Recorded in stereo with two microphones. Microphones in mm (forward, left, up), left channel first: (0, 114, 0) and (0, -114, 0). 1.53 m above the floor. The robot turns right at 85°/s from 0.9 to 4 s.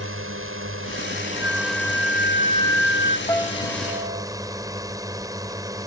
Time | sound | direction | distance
0.0 | a drone | 70° right | ?
1.4 | a flute | 55° left | ?
3.3 | a piano | 165° left | ?